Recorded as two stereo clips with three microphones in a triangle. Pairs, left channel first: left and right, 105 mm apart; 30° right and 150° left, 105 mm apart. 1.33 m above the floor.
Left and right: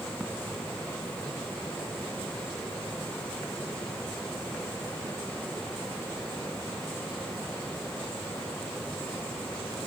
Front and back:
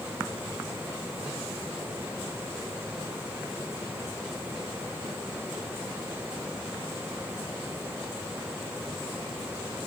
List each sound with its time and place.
Only background noise.